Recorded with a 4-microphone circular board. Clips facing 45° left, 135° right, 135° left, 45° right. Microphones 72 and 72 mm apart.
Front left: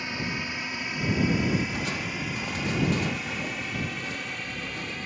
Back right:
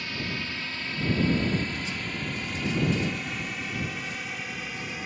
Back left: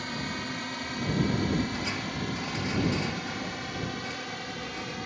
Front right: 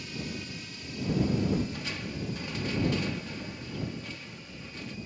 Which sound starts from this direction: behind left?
A drone, at 0.0 s.